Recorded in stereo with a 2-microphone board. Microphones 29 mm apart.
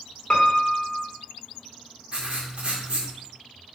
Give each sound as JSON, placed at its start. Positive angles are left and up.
{"t": 0.3, "sound": "a piano", "side_deg": 35, "distance_m": 1.5}
{"t": 2.1, "sound": "writing", "side_deg": -40, "distance_m": 2.0}